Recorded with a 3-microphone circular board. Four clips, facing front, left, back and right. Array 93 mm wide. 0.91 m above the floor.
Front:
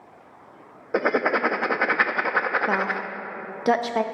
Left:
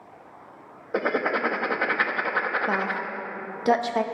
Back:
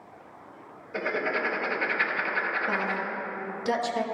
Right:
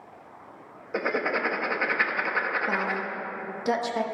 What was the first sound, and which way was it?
Writing, 20° left.